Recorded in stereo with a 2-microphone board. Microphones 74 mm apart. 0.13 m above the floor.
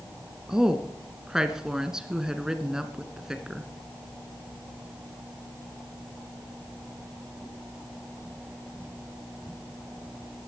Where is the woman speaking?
10° right (ahead or behind), 1.4 m.